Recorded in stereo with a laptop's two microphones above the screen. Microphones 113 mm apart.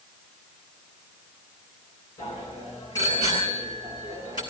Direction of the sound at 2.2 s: 30° left (ahead or behind).